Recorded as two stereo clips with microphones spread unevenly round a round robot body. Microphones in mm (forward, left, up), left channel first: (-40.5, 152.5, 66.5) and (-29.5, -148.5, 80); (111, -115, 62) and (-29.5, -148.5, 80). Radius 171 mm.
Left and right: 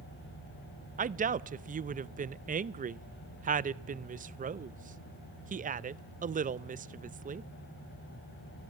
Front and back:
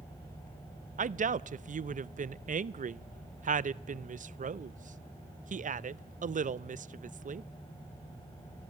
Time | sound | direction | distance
1.0 | a woman speaking | 150° right | 0.6 m